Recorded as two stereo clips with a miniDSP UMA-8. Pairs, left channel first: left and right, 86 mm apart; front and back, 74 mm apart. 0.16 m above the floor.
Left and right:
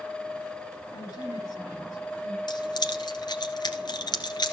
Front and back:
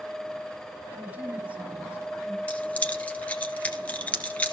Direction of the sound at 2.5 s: 70° left.